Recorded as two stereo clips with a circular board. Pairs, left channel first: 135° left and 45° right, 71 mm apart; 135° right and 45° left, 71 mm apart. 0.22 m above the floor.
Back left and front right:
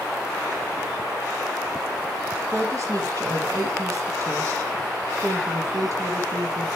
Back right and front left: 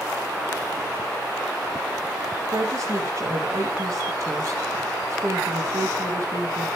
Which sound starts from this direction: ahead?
A woman speaking, at 2.5 s.